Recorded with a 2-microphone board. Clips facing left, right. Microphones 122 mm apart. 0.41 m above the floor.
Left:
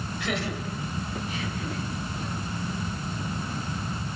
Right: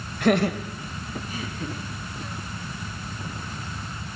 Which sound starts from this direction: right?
Laughter, at 0.2 s.